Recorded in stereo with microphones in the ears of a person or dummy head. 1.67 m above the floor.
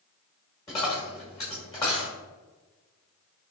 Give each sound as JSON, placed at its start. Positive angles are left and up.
{"t": 0.7, "sound": "a dropped coin", "side_deg": 20, "distance_m": 1.1}